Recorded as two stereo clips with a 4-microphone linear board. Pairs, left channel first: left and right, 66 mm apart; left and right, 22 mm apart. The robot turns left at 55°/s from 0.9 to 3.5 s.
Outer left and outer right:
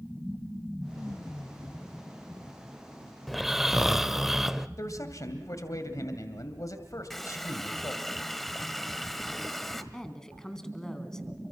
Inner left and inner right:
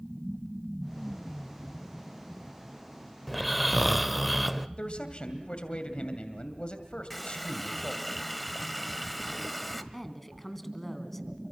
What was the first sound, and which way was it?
Snoring, 5° left (ahead or behind).